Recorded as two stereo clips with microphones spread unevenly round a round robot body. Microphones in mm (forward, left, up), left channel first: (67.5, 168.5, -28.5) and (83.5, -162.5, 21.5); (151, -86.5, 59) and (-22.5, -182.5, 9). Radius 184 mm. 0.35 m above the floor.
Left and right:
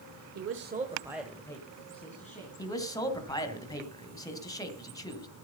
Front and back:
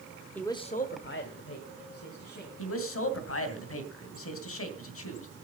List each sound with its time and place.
0.3 s a man speaking: 75° right, 1.1 m; by 2.5 s 30° left, 2.5 m
2.6 s a man speaking: 15° left, 2.5 m